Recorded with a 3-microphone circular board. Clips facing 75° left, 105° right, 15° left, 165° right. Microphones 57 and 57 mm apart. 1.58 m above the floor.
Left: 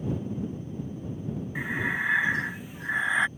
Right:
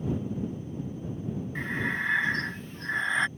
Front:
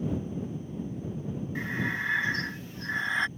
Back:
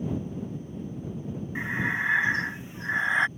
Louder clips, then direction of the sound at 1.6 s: Left 2 dB, back 4 dB; 150° left.